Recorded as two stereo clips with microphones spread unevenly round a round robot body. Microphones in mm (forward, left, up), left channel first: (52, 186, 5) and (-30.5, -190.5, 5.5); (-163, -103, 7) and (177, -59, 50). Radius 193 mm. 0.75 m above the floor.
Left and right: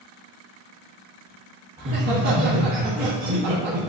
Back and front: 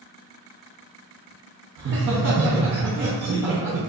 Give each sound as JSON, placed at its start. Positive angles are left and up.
{"t": 1.8, "sound": "laughter", "azimuth_deg": -50, "distance_m": 0.7}